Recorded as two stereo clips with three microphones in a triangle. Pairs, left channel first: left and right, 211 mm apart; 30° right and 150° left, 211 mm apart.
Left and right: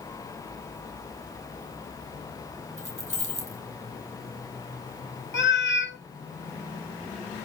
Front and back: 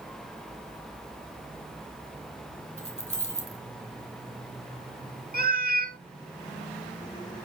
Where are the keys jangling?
85° right, 2 m.